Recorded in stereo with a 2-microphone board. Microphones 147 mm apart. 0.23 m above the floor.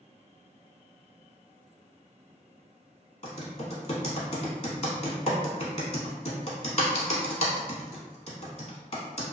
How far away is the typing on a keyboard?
About 0.7 m.